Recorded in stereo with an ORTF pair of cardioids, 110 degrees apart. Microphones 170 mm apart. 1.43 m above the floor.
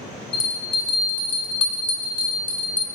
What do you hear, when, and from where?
0.3 s a bell: 30° left, 0.6 m